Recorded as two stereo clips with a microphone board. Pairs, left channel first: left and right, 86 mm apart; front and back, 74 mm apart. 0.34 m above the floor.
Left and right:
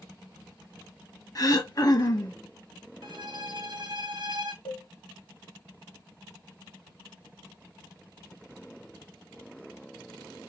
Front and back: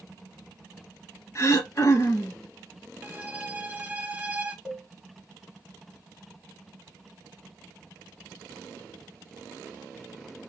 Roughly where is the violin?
Right.